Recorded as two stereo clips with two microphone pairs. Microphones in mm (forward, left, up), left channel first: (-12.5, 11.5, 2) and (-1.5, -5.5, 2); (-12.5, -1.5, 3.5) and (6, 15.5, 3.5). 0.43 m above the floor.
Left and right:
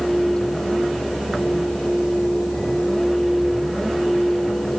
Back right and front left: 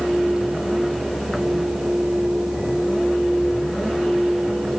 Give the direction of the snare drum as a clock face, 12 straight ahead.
I don't hear a snare drum.